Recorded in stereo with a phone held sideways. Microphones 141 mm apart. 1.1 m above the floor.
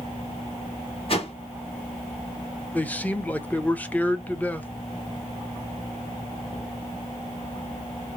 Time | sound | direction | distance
1.1 | a whoosh | 45° left (ahead or behind) | 1.5 m
2.7 | a man speaking | 10° left (ahead or behind) | 0.6 m